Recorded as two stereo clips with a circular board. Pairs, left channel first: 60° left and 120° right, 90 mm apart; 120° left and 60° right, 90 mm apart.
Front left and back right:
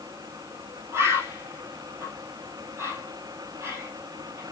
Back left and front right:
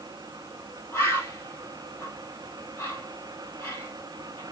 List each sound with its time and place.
0.9 s a bird: straight behind, 2.5 m